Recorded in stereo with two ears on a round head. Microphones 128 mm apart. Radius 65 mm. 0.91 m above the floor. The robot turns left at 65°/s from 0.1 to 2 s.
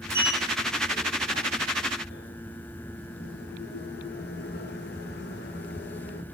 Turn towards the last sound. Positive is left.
turn(degrees=75)  # may be behind; listen again after turning